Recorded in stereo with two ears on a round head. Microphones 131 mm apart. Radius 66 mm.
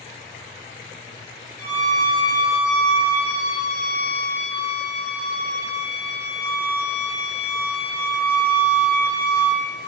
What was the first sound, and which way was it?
A violin, 10° left (ahead or behind).